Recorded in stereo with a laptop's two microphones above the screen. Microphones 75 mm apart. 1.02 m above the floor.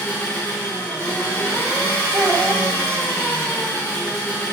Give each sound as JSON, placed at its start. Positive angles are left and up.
{"t": 0.0, "sound": "an engine running", "side_deg": 30, "distance_m": 1.3}
{"t": 2.1, "sound": "a child speaking", "side_deg": -50, "distance_m": 0.8}